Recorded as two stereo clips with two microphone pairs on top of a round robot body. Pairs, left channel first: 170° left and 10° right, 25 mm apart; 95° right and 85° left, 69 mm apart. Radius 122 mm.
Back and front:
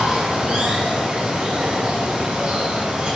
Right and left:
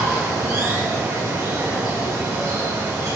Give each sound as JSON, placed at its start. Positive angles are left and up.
{"t": 0.0, "sound": "running water", "azimuth_deg": 40, "distance_m": 3.5}